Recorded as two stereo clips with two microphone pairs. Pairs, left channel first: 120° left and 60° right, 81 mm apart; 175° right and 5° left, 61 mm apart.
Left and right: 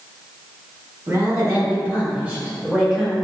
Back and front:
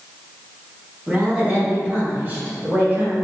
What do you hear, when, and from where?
1.1 s a woman speaking: 50° right, 1.5 m; by 3.1 s 25° left, 1.3 m